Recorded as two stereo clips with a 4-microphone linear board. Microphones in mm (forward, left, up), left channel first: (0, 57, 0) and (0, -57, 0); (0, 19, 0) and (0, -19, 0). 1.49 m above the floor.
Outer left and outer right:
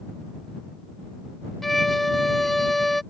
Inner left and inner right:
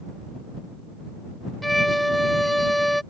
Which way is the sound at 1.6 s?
Centre (ahead or behind).